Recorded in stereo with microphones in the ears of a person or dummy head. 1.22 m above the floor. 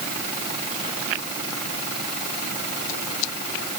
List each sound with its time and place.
Only background noise.